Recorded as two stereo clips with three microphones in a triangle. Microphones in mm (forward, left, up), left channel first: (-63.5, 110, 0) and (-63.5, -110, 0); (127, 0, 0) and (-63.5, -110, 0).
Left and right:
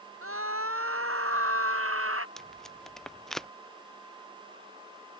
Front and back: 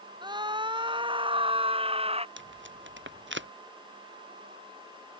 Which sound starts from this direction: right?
A scream, at 0.2 s.